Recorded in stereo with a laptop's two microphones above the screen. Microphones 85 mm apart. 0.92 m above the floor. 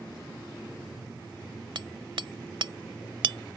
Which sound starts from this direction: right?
Hammering, at 1.8 s.